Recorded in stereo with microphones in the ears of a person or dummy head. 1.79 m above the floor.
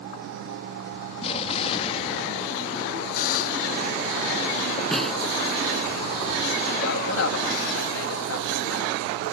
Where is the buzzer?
50° left (ahead or behind).